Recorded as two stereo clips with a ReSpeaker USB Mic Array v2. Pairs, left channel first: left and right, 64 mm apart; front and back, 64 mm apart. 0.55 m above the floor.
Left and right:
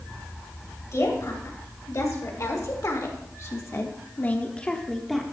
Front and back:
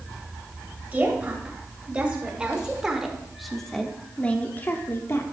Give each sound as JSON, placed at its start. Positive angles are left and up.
{"t": 0.9, "sound": "a woman speaking", "azimuth_deg": 115, "distance_m": 3.0}